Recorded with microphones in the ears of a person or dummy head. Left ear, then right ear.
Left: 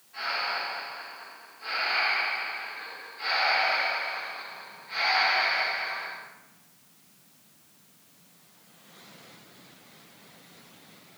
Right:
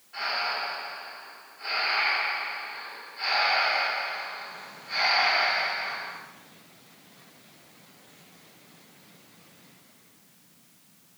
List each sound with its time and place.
0.1 s breathing: 40° right (ahead or behind), 1.6 m